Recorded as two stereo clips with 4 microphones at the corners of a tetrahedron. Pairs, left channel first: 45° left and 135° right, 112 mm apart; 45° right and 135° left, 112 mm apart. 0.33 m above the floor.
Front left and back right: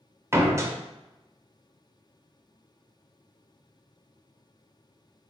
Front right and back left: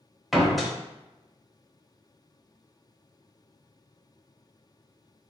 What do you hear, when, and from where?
0.3 s a door slam: 135° right, 0.5 m